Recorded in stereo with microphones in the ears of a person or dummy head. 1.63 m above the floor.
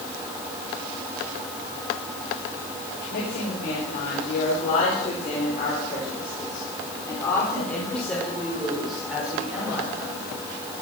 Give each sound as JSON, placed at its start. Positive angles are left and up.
{"t": 3.1, "sound": "a woman speaking", "side_deg": 55, "distance_m": 6.0}